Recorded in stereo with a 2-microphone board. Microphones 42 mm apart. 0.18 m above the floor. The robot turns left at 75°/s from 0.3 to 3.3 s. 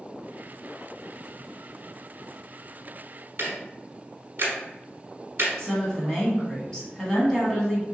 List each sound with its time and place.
3.4 s ticking: 55° right (ahead or behind), 1.1 m
5.6 s a woman speaking: 15° left (ahead or behind), 1.2 m